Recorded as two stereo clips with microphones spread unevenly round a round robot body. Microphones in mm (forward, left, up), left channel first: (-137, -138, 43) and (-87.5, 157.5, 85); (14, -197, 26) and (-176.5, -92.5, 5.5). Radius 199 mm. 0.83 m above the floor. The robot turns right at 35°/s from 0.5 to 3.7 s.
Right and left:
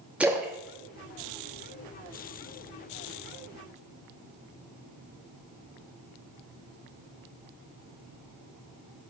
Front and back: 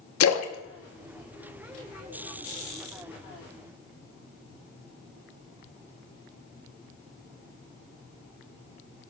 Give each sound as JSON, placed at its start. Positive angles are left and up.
{"t": 0.2, "sound": "a splash", "azimuth_deg": -10, "distance_m": 0.7}